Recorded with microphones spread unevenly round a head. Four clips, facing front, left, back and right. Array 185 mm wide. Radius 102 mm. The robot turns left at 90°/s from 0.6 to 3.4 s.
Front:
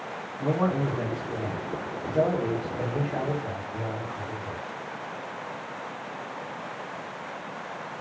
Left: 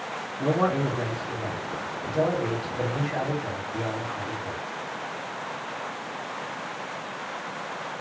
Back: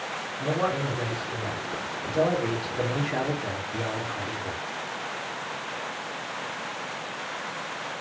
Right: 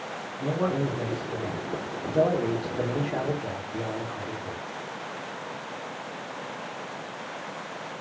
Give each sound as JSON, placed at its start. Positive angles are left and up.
{"t": 0.4, "sound": "a man speaking", "azimuth_deg": 85, "distance_m": 1.2}